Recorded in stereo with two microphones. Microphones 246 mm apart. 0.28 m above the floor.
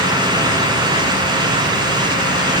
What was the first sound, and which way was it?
Only background noise.